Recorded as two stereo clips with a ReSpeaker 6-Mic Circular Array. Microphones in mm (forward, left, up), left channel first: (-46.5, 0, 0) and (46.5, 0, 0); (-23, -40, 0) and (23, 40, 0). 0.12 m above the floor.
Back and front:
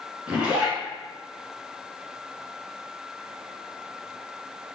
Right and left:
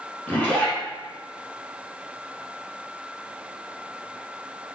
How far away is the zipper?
About 1.3 m.